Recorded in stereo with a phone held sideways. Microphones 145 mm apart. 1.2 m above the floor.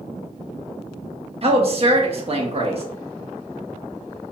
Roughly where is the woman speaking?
Right.